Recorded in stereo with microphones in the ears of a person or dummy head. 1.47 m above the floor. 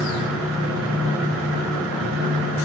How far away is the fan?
About 0.9 m.